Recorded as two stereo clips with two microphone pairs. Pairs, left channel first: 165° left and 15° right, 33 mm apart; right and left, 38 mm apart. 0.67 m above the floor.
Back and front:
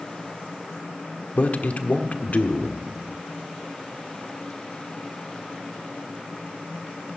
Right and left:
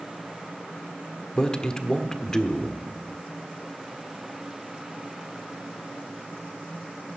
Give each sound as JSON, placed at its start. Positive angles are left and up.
{"t": 1.4, "sound": "a man speaking", "azimuth_deg": -160, "distance_m": 1.4}